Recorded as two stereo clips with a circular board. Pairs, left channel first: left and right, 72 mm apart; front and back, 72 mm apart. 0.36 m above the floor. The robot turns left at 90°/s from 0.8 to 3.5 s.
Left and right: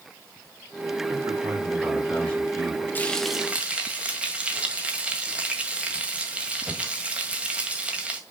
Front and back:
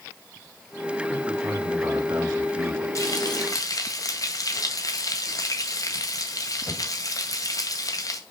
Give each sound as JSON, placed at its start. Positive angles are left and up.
{"t": 1.1, "sound": "a man speaking", "azimuth_deg": -90, "distance_m": 3.0}
{"t": 3.0, "sound": "frying", "azimuth_deg": 30, "distance_m": 1.6}